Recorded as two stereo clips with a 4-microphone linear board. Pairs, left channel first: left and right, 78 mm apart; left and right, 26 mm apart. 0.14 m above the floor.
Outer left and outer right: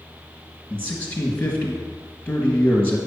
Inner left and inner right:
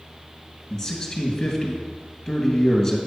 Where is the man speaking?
20° left (ahead or behind), 2.5 m.